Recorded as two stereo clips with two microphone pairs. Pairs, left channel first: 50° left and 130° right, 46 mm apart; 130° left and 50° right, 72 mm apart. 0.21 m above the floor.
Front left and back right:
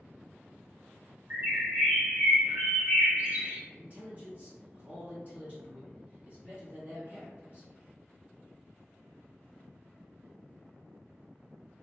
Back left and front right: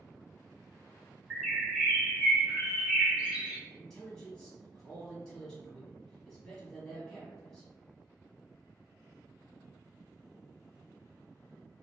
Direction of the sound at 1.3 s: 115° right.